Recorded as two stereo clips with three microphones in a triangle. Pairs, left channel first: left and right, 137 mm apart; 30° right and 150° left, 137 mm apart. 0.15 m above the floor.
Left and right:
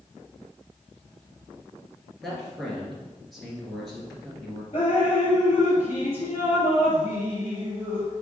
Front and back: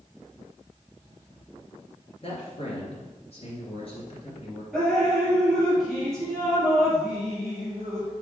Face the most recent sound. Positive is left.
turn(degrees=55)